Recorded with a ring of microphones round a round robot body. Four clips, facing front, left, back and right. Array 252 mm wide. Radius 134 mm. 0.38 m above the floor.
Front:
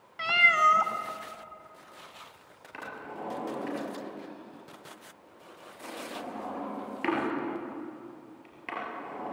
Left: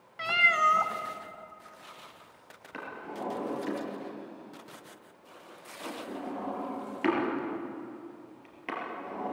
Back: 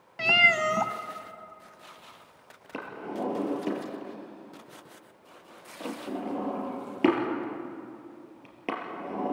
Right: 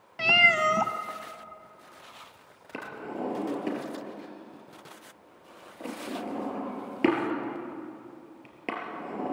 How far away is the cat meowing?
About 0.6 m.